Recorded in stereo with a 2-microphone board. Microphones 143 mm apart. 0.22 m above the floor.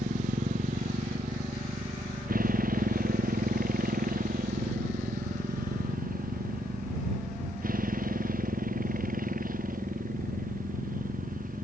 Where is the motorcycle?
70° right (ahead or behind); by 11.7 s 75° right (ahead or behind).